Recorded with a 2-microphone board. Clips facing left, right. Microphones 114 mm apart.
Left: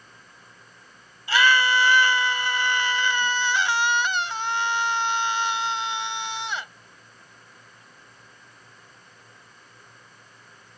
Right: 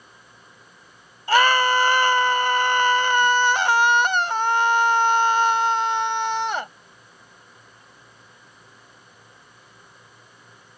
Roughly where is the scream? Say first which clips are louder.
Right 3 dB; right.